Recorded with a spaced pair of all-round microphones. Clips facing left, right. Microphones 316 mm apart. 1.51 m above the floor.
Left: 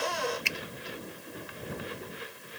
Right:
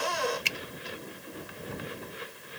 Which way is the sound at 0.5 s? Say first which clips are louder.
Left 1 dB; 45° right (ahead or behind).